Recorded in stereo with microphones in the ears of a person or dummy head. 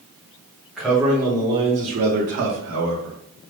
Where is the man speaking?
Centre (ahead or behind), 1.2 m; by 3.2 s 80° right, 1.0 m.